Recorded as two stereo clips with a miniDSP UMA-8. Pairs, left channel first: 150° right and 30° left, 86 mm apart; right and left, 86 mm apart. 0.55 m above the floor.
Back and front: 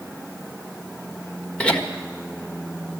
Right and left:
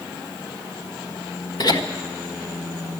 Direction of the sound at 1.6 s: 75° right.